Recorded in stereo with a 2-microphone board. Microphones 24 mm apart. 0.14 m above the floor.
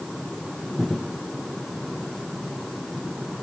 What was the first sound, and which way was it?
Only background noise.